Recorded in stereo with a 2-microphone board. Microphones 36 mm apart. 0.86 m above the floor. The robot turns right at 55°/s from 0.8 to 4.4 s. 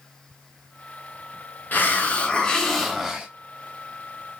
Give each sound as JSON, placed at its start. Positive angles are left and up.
{"t": 1.7, "sound": "a hiss", "azimuth_deg": 110, "distance_m": 0.7}